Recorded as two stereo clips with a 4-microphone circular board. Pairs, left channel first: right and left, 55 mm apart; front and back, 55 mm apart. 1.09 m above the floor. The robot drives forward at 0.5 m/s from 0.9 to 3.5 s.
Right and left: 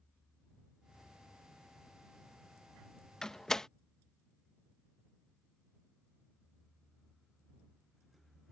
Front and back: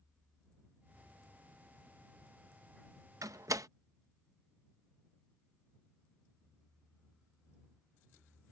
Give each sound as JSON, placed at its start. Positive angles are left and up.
{"t": 3.2, "sound": "a door slam", "azimuth_deg": -170}